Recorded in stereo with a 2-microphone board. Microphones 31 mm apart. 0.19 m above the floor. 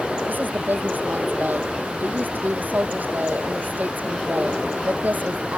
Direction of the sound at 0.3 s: 80° right.